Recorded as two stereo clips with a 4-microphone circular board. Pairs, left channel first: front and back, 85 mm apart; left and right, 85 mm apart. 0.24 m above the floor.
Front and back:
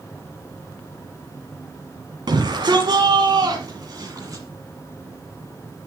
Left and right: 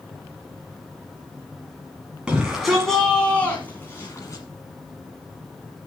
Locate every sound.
2.3 s a shout: 165° right, 1.8 m; by 4.4 s 135° left, 2.0 m